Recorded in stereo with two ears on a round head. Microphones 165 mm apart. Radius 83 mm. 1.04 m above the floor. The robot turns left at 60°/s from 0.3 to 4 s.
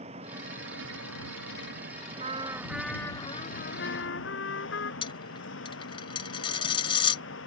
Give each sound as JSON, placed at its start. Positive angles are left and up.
{"t": 0.0, "sound": "an engine running", "azimuth_deg": -35}
{"t": 2.2, "sound": "a trumpet", "azimuth_deg": -145}
{"t": 5.0, "sound": "a dropped coin", "side_deg": 30}